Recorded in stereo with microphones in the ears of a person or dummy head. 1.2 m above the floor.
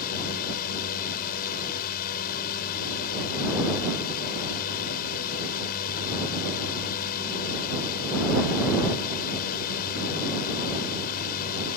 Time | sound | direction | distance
0.0 | a drone | 50° left (ahead or behind) | ?